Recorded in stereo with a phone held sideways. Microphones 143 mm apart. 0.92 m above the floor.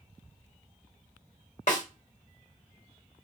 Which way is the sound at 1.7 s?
55° left (ahead or behind).